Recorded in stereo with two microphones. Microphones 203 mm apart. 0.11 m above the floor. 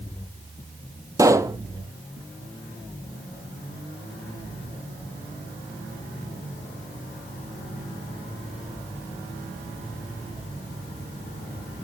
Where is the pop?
15° right (ahead or behind), 0.8 m.